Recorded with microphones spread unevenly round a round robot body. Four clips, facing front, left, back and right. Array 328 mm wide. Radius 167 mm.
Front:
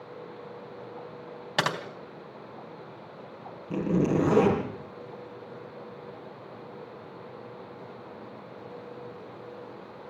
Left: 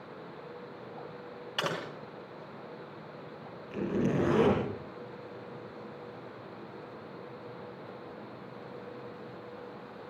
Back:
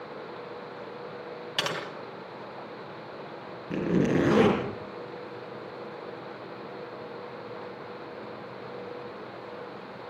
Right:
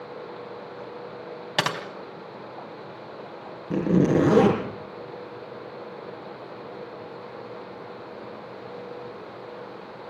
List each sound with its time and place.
1.6 s typing on a keyboard: 60° right, 3.5 m
3.7 s a zipper: 95° right, 5 m